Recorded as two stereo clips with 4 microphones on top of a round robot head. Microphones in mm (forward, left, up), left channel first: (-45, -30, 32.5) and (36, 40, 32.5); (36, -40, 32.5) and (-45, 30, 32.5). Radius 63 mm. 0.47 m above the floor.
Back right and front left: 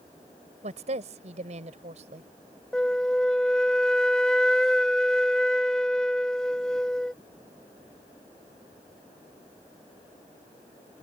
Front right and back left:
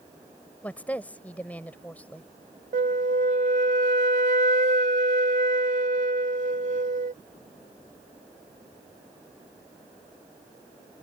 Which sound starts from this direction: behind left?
A flute, at 2.7 s.